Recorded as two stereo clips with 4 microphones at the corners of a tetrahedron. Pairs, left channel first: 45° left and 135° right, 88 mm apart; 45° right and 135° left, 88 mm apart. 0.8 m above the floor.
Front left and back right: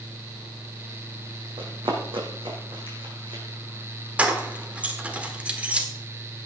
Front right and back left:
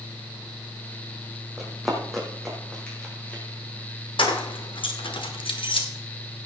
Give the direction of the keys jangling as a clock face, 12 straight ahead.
2 o'clock.